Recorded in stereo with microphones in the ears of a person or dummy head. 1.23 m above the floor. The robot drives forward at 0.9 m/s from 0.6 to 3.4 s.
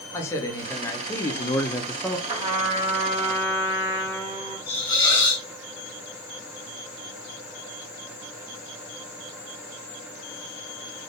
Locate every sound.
0.1 s a man speaking: 5° left (ahead or behind), 1.2 m
2.3 s a trumpet: 20° right (ahead or behind), 1.1 m; by 4.6 s 10° right (ahead or behind), 2 m
4.7 s a hiss: 25° left (ahead or behind), 1.7 m